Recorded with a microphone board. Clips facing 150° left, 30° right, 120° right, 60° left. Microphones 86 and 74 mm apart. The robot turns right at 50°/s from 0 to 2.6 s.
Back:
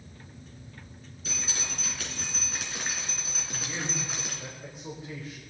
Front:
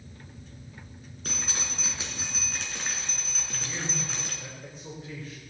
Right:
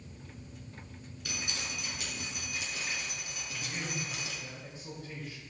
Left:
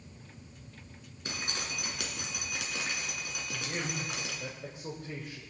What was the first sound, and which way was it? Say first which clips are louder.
Dripping: front 1 dB, left 2 dB; straight ahead.